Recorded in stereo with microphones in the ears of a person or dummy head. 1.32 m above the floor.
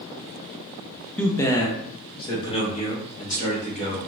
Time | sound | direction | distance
1.2 | a man speaking | 5° left (ahead or behind) | 0.6 m